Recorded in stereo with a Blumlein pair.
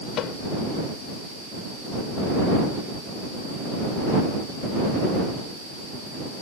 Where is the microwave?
35° left.